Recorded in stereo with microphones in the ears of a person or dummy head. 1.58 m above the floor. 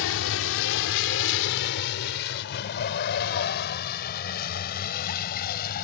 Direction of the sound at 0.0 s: 75° left (ahead or behind).